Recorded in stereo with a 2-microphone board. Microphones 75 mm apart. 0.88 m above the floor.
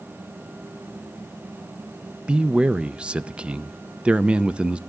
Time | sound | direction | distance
2.3 | a man speaking | 15° right (ahead or behind) | 0.5 m